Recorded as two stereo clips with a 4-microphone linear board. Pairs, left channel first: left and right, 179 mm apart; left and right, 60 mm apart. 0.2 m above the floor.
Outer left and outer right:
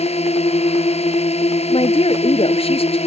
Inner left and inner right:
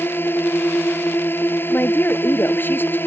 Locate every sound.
0.0 s a drone: 35° left (ahead or behind)
1.7 s a woman speaking: 35° left (ahead or behind)